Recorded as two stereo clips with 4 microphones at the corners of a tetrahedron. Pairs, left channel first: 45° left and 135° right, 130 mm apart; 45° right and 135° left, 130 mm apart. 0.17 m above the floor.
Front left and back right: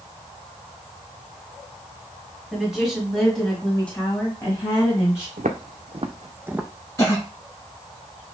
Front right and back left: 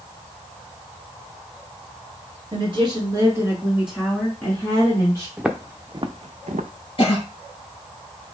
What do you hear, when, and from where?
2.5 s a woman speaking: 145° left, 2 m; by 5.3 s 5° right, 2.0 m
5.4 s footsteps: 140° right, 0.8 m; by 6.7 s 140° left, 0.7 m
7.0 s a cough: 10° right, 3 m